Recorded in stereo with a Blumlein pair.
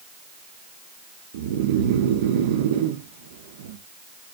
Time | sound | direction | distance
1.3 | snoring | 55° right | 1.1 m